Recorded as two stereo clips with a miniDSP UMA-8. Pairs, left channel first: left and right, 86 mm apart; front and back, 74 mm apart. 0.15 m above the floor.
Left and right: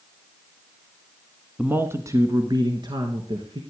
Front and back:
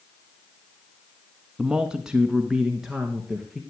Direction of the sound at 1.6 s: 125° right.